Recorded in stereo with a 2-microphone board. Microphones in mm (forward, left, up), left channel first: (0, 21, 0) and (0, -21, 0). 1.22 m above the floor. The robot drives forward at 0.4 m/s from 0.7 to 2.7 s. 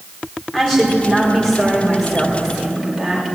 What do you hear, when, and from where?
0.5 s a woman speaking: 10° left (ahead or behind), 4 m; by 3.4 s 5° left (ahead or behind), 5 m